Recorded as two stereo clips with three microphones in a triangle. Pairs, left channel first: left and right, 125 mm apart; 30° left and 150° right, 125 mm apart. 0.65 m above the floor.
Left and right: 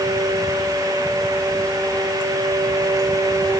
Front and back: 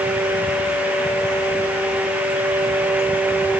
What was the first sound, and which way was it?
Only background noise.